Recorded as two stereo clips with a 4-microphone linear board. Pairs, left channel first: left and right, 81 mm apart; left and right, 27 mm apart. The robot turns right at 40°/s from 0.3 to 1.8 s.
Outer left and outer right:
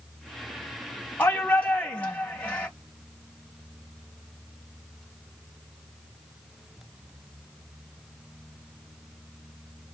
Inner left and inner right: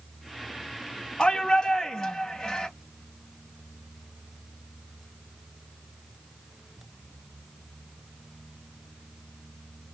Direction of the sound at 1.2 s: 25° left (ahead or behind).